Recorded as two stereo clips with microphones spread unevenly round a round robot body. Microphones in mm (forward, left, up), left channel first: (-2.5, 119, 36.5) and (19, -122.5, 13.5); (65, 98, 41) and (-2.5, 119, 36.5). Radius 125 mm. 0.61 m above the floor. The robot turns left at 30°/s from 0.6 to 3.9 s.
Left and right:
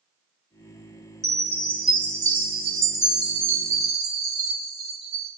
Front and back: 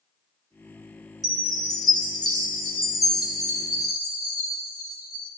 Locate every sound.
1.2 s a chime: 10° left, 2.5 m; by 5.3 s 70° right, 2.5 m